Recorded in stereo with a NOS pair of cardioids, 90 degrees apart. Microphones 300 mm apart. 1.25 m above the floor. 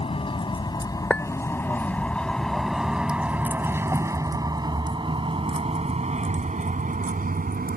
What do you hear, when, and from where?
0.0 s a vehicle: 20° left; by 7.8 s 30° right
1.1 s a clink: 5° left